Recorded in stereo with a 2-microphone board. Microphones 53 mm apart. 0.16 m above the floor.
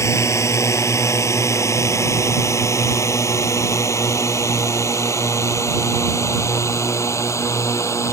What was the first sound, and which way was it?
A drone, 65° left (ahead or behind).